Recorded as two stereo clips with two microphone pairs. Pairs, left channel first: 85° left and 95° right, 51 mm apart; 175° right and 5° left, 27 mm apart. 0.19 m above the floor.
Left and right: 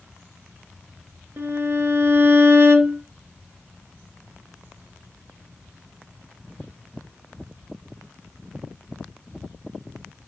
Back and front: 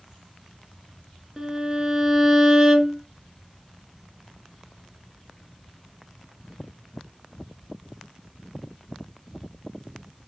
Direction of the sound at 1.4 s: 65° right.